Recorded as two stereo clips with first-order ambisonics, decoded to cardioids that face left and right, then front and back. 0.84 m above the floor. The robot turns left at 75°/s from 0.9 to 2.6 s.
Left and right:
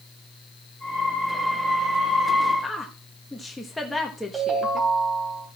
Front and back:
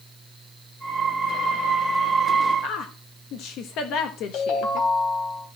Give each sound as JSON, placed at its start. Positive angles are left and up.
{"t": 2.6, "sound": "a woman speaking", "azimuth_deg": 5, "distance_m": 1.1}
{"t": 4.3, "sound": "a ringtone", "azimuth_deg": -20, "distance_m": 3.5}